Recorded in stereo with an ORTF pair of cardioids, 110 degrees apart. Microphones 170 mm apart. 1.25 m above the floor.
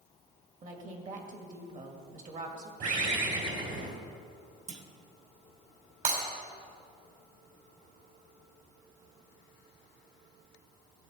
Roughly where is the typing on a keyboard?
No typing on a keyboard in this recording.